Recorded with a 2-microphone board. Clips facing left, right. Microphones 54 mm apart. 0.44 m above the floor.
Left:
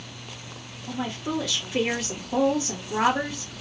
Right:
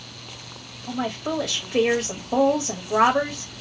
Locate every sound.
0.9 s a woman speaking: 60° right (ahead or behind), 1.8 m